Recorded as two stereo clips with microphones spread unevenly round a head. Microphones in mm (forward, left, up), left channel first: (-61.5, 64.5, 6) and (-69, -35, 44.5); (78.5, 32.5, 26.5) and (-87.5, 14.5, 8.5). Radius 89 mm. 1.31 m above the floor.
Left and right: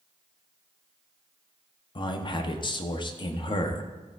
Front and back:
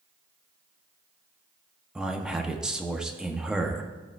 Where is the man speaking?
105° left, 0.9 m.